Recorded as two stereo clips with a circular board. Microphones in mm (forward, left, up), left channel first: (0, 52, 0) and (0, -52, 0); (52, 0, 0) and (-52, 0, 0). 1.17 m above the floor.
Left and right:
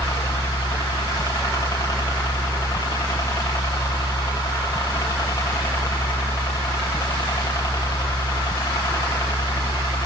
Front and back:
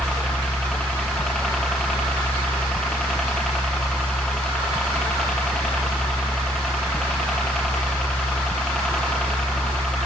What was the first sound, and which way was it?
A helicopter, 80° left.